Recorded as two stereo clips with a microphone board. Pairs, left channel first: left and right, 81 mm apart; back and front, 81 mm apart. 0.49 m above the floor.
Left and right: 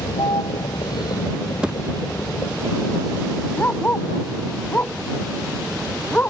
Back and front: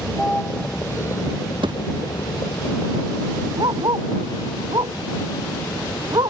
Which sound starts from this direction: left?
A vehicle, at 0.0 s.